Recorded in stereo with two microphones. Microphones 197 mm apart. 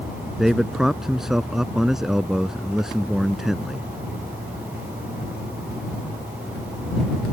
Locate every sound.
0.4 s a man speaking: centre (ahead or behind)